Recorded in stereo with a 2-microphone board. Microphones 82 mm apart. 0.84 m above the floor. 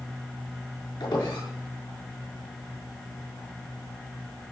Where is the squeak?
70° left (ahead or behind), 6 m.